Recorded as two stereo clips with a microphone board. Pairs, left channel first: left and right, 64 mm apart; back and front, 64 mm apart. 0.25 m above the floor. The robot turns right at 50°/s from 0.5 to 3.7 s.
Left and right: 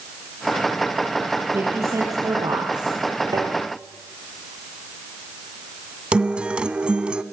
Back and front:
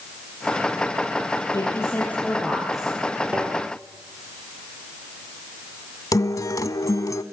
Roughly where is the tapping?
Right.